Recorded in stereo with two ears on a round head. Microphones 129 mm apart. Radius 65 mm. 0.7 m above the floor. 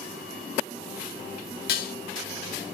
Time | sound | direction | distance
1.7 | dishes clattering | 70° left (ahead or behind) | 0.6 m